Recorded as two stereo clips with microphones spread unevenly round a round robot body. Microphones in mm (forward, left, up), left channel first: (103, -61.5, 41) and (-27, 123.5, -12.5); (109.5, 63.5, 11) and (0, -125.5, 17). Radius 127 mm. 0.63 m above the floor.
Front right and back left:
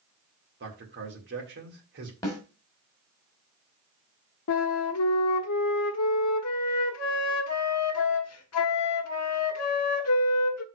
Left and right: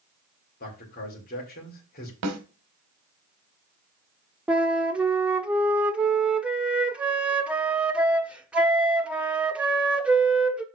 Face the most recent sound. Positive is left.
turn(degrees=-35)